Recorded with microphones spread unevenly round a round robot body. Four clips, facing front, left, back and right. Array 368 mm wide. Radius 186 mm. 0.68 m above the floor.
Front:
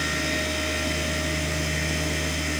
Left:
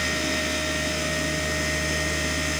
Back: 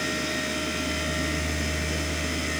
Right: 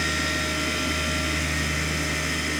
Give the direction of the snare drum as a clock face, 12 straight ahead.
No snare drum in this recording.